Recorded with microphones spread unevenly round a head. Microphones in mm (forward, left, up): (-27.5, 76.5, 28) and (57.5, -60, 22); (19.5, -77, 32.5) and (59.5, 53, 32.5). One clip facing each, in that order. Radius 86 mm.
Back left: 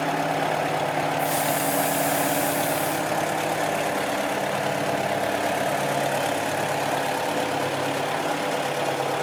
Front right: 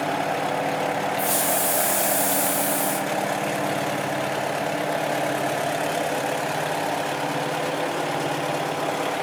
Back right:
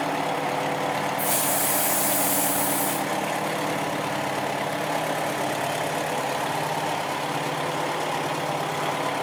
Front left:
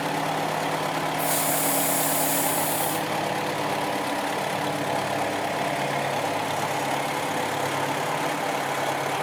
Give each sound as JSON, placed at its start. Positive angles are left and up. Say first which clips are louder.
{"t": 1.2, "sound": "a hiss", "louder": "even, even", "azimuth_deg": -35, "distance_m": 2.5}